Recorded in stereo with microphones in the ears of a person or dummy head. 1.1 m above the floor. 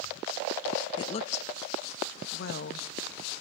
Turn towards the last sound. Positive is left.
turn(degrees=60)  # may be behind; listen again after turning